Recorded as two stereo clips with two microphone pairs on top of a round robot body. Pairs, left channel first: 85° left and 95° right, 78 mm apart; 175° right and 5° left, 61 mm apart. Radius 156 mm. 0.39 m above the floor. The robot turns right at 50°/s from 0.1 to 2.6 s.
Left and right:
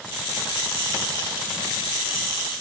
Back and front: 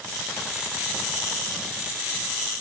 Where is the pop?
No pop in this recording.